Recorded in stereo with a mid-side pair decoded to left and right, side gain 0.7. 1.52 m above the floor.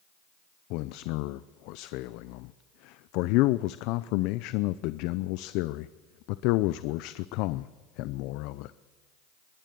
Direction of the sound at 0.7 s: 65° left.